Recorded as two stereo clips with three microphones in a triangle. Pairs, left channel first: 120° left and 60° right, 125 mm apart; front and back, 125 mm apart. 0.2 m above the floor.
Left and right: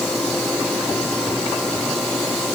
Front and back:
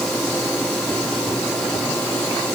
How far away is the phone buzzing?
I don't hear a phone buzzing.